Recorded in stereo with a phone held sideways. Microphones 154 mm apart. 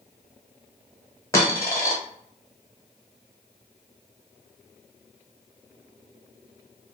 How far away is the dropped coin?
About 1.3 m.